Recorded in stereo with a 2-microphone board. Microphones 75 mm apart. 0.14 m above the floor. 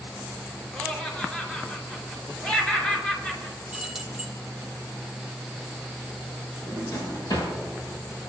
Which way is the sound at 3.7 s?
5° right (ahead or behind).